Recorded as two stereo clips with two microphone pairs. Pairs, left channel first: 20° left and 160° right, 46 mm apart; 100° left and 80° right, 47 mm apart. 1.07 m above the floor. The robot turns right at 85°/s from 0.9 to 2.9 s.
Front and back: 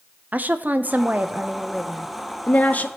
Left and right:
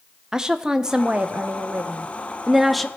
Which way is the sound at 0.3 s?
145° right.